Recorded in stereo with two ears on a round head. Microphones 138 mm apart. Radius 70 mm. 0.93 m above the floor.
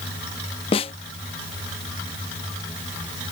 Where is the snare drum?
35° left (ahead or behind).